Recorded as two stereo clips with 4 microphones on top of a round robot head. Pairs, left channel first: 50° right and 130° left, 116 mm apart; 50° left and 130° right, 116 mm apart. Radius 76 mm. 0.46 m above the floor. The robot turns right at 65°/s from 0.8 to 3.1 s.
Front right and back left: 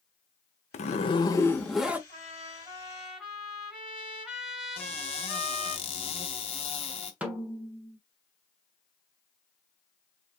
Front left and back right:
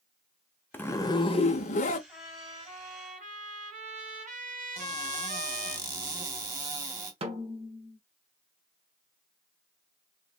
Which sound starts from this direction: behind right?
A snare drum, at 7.2 s.